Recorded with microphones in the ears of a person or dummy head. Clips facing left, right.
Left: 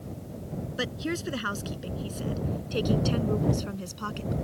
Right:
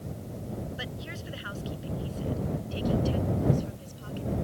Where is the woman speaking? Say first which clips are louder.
Left 9 dB; 70° left (ahead or behind); by 4.3 s 80° left.